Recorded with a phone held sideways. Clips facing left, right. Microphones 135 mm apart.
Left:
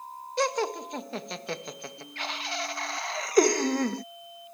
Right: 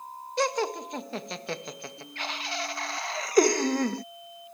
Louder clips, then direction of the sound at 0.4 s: Even; centre (ahead or behind).